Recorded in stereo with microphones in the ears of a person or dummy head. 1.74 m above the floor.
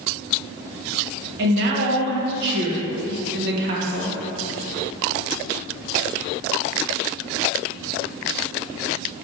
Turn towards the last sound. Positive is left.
turn(degrees=-60)  # may be behind; listen again after turning